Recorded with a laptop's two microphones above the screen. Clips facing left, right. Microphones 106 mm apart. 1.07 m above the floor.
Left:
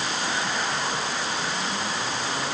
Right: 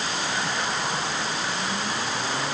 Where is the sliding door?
No sliding door in this recording.